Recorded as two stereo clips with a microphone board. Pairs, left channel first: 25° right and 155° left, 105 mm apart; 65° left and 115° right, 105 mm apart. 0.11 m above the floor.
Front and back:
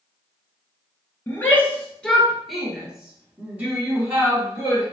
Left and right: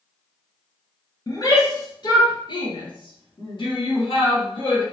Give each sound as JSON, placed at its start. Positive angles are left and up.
{"t": 1.3, "sound": "a shout", "azimuth_deg": 35, "distance_m": 1.9}